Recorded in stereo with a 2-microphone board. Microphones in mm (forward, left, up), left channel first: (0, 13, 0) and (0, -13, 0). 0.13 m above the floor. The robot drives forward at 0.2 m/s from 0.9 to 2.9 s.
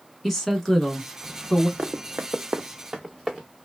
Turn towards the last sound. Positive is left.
turn(degrees=-5)  # may be behind; listen again after turning